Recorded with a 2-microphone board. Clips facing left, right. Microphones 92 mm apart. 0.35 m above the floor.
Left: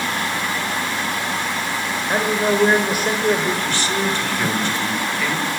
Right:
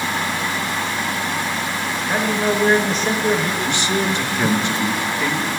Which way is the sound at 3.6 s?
20° right (ahead or behind).